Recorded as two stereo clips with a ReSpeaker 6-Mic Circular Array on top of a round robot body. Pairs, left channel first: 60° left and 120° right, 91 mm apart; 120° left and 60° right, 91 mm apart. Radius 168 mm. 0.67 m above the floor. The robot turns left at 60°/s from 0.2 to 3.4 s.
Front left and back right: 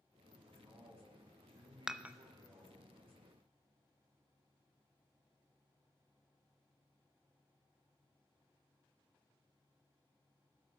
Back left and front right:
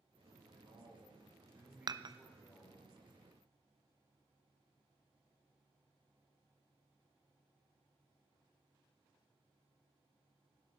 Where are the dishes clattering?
35° right, 0.5 m; by 2.1 s 55° right, 0.5 m.